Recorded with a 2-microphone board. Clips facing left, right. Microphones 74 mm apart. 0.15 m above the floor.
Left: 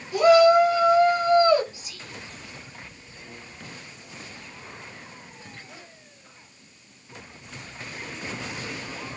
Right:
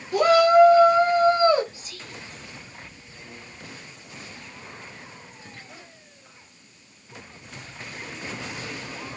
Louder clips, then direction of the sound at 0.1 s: Even; 45° right (ahead or behind).